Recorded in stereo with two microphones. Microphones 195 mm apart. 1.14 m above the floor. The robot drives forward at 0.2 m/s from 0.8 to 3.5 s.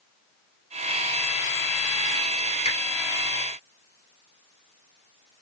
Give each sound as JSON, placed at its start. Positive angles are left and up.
{"t": 2.6, "sound": "a finger snap", "side_deg": 35, "distance_m": 1.1}